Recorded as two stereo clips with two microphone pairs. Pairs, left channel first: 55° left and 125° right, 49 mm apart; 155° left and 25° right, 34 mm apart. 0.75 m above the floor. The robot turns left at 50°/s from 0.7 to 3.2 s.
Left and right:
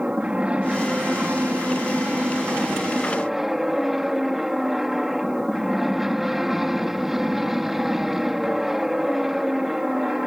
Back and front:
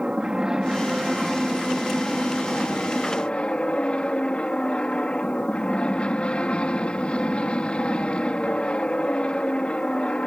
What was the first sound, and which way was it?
An aircraft, 75° right.